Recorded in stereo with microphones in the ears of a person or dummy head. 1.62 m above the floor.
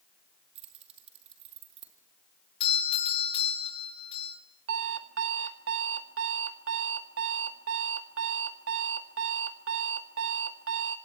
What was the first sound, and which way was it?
Keys jangling, 30° right (ahead or behind).